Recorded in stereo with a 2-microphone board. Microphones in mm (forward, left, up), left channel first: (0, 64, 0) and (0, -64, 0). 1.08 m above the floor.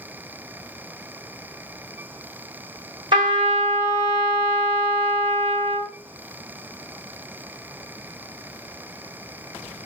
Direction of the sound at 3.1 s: 40° right (ahead or behind).